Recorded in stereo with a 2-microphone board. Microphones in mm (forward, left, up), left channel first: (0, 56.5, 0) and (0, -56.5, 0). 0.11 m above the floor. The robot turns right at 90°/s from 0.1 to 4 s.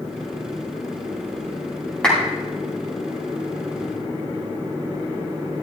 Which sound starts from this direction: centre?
A clap, at 2.0 s.